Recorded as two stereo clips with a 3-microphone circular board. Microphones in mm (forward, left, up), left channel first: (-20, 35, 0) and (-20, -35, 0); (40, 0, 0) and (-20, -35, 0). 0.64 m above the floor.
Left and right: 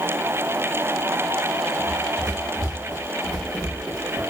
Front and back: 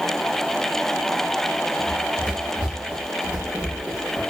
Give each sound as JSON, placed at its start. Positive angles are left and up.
{"t": 1.8, "sound": "running footsteps", "azimuth_deg": -140, "distance_m": 5.0}